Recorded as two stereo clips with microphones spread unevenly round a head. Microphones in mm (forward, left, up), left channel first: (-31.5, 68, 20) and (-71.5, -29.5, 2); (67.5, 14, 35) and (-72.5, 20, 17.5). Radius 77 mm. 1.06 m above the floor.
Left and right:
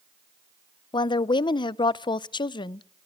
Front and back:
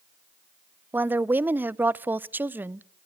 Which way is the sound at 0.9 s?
110° left.